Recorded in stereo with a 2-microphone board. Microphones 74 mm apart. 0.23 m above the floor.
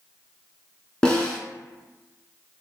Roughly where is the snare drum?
Centre.